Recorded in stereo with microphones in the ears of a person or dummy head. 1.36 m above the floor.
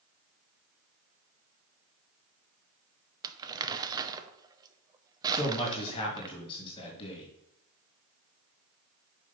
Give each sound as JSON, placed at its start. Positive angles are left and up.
{"t": 3.2, "sound": "crumpling", "side_deg": -20, "distance_m": 0.7}
{"t": 5.3, "sound": "a man speaking", "side_deg": 25, "distance_m": 2.5}